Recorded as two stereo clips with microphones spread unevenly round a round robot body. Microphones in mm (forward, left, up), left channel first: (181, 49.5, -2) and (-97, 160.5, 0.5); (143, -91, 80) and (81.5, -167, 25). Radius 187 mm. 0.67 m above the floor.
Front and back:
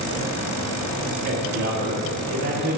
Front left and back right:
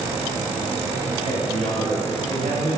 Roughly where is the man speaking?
Left.